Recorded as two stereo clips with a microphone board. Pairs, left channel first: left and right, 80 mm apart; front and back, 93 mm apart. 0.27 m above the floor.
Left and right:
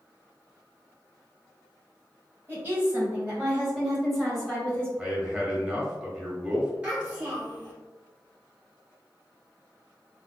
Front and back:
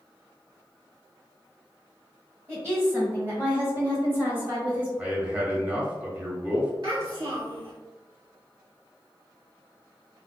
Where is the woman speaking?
140° right, 1.9 m; by 4.9 s 140° left, 1.5 m.